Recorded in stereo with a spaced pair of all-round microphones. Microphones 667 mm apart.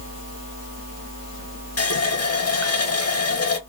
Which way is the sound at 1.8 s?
25° left (ahead or behind).